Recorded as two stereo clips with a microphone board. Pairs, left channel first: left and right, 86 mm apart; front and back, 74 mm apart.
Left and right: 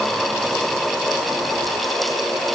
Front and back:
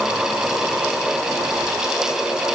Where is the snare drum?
No snare drum in this recording.